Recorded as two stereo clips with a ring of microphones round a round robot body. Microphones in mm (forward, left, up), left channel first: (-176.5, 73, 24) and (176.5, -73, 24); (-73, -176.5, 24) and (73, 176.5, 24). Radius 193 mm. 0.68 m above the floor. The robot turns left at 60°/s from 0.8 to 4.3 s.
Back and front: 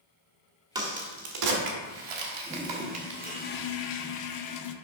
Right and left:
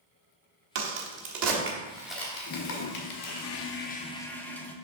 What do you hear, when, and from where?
0.8 s a crack: 55° left, 1.2 m; by 3.5 s 105° right, 1.2 m
2.5 s a toilet flushing: 85° right, 0.6 m; by 4.8 s 165° left, 0.6 m